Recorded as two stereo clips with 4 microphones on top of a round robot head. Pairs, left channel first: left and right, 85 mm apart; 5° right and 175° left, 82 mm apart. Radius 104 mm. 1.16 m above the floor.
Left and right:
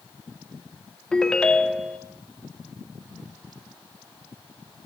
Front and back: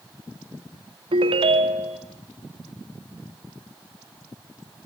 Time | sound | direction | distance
1.1 | a ringtone | 170° left | 1.5 m